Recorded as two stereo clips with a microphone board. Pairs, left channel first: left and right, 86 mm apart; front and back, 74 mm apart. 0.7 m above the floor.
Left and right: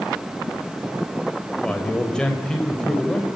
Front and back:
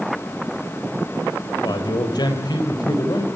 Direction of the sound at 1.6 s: 10° left.